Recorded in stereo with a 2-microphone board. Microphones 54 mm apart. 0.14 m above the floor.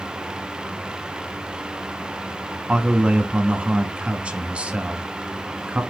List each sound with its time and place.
2.7 s a man speaking: 20° right (ahead or behind), 1.3 m